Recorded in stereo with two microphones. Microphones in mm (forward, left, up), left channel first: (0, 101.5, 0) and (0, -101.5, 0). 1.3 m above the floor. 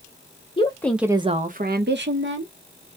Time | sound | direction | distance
0.6 | a woman speaking | 25° left (ahead or behind) | 0.5 m